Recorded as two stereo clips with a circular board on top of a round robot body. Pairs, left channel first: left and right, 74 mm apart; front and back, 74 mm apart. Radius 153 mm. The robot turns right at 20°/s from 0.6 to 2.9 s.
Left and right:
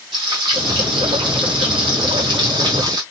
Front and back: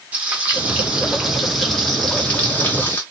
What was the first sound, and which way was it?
Frying, 110° right.